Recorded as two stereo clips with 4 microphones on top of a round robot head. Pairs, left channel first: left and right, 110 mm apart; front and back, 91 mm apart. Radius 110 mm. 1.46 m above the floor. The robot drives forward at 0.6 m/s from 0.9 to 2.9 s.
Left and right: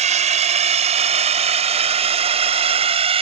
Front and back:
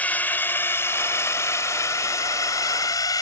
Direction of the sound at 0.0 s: 75° right.